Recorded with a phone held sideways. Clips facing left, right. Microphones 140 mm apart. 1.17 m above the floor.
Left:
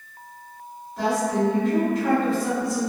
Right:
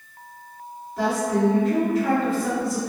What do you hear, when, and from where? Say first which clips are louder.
1.0 s a woman speaking: right 1 dB; centre (ahead or behind), 1.5 m